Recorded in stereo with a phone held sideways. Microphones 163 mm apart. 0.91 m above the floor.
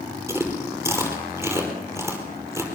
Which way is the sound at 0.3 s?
15° right (ahead or behind).